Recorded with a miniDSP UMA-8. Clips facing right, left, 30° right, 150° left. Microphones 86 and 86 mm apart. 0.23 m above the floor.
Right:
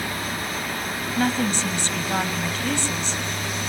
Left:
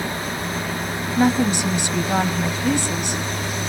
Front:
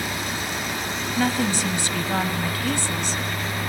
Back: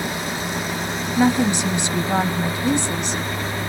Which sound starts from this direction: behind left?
A woman speaking, at 1.2 s.